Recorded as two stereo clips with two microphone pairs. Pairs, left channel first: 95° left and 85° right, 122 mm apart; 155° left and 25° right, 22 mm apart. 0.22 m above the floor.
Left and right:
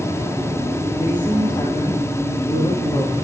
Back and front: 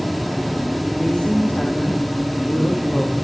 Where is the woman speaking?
150° left, 5.5 m; by 3.1 s 135° left, 5 m.